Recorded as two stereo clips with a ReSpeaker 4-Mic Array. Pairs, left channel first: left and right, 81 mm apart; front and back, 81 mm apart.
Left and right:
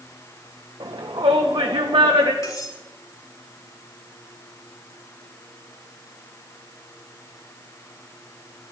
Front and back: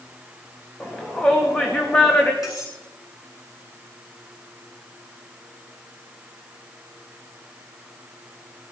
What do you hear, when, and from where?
0.8 s a shout: 80° right, 2 m
2.4 s cutlery clinking: 40° left, 9.5 m